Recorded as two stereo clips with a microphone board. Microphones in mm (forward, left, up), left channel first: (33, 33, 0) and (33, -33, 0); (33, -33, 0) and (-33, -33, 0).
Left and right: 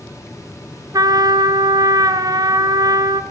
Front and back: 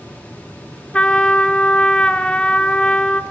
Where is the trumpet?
75° right, 1.4 m.